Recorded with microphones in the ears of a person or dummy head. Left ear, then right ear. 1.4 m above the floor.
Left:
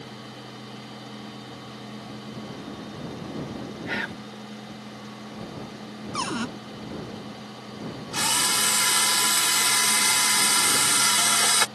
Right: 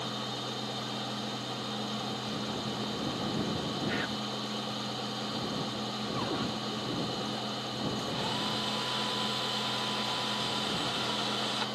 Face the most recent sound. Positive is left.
turn(degrees=65)  # may be behind; listen again after turning